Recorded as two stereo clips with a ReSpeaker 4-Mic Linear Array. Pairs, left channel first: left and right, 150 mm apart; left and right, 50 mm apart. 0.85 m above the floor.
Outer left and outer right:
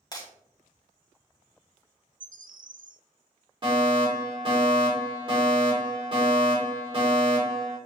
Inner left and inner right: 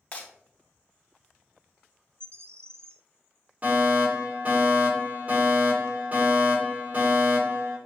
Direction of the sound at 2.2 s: 70° right (ahead or behind).